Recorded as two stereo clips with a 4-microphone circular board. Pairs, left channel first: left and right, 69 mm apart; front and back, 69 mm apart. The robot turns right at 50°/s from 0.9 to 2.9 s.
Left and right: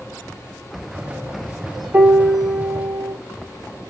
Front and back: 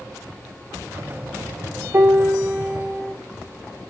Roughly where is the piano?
Behind right.